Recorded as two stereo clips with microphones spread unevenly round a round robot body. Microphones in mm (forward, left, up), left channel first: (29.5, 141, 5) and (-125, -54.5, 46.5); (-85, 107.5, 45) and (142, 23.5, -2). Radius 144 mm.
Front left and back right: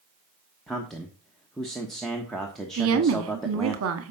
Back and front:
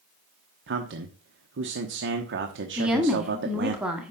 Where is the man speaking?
30° right, 1.1 m.